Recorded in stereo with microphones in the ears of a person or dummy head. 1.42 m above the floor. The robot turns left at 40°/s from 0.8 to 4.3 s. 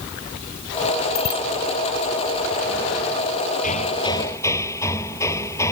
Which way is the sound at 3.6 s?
40° left (ahead or behind).